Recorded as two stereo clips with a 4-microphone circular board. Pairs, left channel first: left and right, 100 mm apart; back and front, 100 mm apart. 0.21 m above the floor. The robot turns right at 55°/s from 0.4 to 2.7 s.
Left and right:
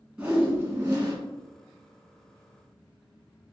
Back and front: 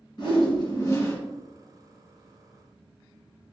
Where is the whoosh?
165° right, 1.8 m; by 1.2 s 125° right, 1.8 m.